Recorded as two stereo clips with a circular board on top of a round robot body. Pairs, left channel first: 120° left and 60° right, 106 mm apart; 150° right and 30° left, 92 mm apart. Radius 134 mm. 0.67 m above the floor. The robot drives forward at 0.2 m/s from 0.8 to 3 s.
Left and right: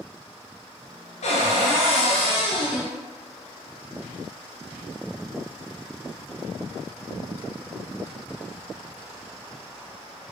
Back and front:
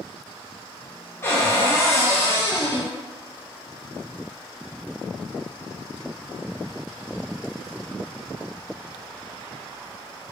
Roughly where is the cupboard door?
Behind left.